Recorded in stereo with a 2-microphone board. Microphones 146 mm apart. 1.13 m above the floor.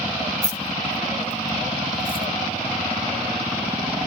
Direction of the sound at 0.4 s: 50° left (ahead or behind).